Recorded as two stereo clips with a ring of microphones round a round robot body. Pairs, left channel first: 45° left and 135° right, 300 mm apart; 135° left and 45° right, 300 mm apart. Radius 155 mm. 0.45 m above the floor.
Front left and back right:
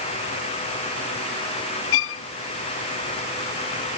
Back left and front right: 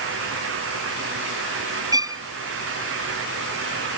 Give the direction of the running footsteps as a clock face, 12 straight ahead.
I don't hear running footsteps.